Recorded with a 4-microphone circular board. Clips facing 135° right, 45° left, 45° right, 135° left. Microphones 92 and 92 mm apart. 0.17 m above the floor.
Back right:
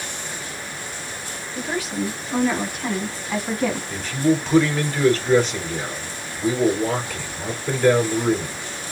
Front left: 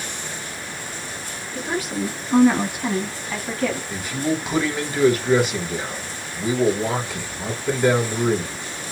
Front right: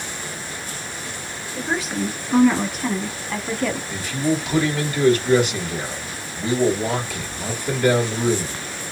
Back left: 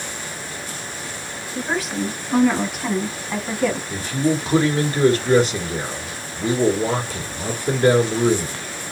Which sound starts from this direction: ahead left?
A woman speaking, at 1.6 s.